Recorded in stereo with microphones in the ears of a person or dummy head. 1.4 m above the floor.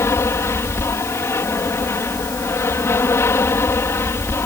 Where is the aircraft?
15° left (ahead or behind); by 4.5 s 10° left (ahead or behind).